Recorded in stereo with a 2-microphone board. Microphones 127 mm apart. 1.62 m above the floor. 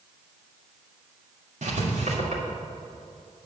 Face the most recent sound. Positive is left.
turn(degrees=-75)  # may be behind; listen again after turning